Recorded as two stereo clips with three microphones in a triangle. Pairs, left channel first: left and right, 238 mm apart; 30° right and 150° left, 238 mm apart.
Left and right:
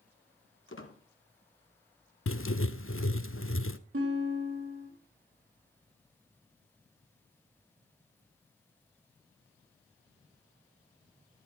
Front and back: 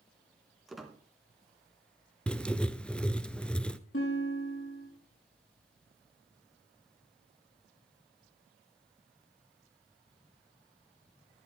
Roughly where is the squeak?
Ahead left.